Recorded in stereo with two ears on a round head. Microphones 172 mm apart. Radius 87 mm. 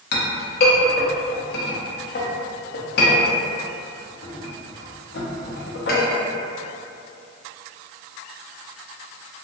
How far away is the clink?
About 0.7 m.